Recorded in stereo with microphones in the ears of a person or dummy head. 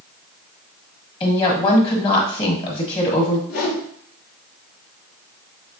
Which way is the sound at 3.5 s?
80° left.